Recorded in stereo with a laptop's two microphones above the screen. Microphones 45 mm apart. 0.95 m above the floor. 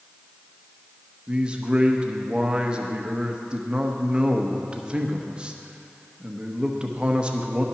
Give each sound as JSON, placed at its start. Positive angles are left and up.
{"t": 1.3, "sound": "a man speaking", "side_deg": -25, "distance_m": 1.0}